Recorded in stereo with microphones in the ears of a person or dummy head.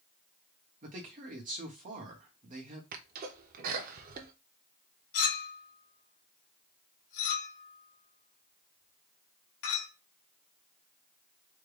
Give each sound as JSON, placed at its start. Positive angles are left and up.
{"t": 0.8, "sound": "a man speaking", "side_deg": -40, "distance_m": 1.0}
{"t": 2.9, "sound": "a sneeze", "side_deg": -50, "distance_m": 0.6}
{"t": 5.1, "sound": "a clink", "side_deg": 75, "distance_m": 1.9}